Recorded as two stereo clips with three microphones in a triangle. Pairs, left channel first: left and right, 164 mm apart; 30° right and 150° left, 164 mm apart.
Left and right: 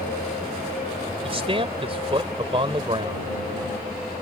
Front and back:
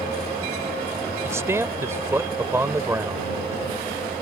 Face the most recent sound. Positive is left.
turn(degrees=-140)